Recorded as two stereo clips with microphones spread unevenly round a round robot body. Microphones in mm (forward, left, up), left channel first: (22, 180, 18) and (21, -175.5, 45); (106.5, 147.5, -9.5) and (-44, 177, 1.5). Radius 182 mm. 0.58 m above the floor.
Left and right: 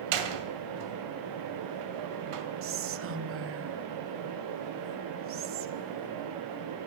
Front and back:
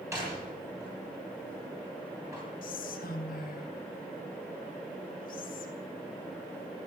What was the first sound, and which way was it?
A door slam, 110° right.